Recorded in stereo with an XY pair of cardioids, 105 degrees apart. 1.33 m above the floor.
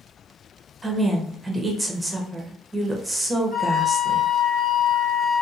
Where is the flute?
40° left, 1.7 m.